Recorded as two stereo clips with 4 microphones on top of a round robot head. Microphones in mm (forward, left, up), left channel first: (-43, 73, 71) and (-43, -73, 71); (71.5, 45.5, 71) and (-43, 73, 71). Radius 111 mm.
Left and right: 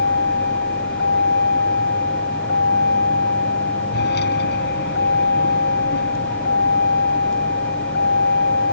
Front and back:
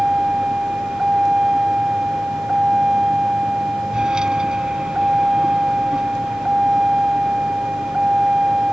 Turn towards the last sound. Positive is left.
turn(degrees=85)